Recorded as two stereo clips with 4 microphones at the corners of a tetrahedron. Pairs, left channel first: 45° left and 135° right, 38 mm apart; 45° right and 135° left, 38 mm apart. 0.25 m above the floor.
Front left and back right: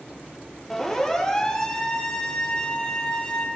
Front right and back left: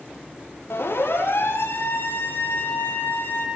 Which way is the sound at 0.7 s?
35° right.